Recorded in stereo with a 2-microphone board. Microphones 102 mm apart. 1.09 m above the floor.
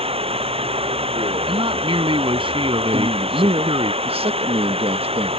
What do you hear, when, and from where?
0.0 s running water: 80° right
1.5 s a man speaking: 65° right (ahead or behind)
2.9 s a man speaking: 75° right (ahead or behind)